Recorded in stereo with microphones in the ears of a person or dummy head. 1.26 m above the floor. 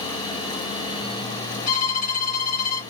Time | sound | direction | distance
1.7 | a violin | 45° left (ahead or behind) | 2.5 m